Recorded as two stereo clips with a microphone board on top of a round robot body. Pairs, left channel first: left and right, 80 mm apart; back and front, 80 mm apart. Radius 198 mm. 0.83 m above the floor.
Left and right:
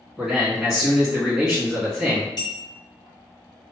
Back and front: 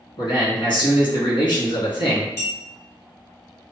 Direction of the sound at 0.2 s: 175° left.